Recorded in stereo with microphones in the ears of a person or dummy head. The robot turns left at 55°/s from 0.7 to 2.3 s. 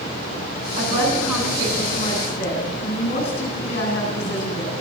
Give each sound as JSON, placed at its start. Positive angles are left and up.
{"t": 0.8, "sound": "a woman speaking", "azimuth_deg": -140, "distance_m": 9.0}